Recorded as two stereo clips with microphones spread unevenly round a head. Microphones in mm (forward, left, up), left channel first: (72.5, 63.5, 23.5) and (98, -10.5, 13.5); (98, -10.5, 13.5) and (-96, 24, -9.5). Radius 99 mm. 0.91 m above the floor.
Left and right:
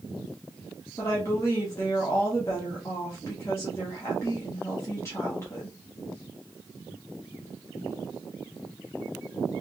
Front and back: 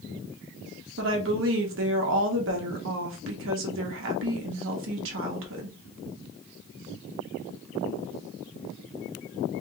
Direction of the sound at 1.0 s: Straight behind.